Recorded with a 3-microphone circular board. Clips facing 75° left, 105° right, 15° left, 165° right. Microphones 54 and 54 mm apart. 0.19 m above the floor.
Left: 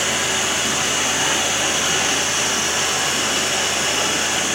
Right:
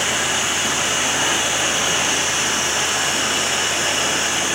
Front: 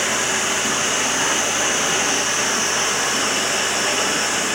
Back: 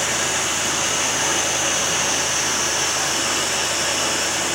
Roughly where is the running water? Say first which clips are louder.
Even, front 2 dB; ahead right.